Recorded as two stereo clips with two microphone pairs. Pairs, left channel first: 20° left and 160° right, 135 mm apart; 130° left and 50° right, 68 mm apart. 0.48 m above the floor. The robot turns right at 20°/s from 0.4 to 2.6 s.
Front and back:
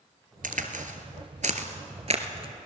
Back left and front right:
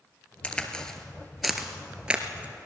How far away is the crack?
About 1.6 m.